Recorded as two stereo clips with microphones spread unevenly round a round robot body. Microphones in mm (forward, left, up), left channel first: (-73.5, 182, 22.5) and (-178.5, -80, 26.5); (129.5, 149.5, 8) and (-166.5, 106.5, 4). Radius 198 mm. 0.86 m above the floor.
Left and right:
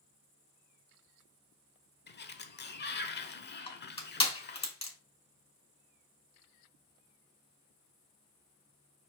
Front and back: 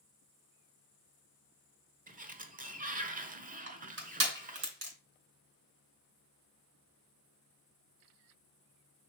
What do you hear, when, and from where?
2.1 s a sliding door: 125° left, 1.2 m
3.7 s crushing: 140° left, 5 m